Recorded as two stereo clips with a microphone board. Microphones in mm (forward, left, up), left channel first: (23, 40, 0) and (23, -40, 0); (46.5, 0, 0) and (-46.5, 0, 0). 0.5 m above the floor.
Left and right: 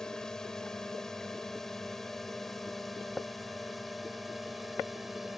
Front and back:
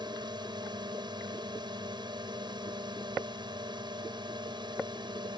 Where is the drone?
170° left; by 5.4 s straight behind.